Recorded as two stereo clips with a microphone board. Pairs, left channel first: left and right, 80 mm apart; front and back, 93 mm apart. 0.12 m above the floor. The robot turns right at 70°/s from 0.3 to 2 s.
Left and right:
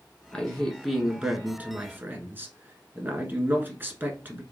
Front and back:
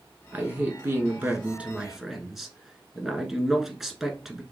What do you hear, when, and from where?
0.3 s a man speaking: 145° left, 1.1 m; by 4.4 s 95° right, 1.1 m